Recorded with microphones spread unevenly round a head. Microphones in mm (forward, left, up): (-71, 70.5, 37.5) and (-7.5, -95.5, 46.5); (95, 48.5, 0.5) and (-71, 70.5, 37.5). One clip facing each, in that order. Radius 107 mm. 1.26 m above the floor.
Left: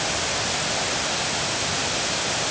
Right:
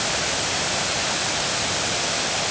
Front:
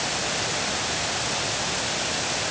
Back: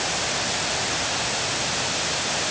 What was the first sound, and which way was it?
Only background noise.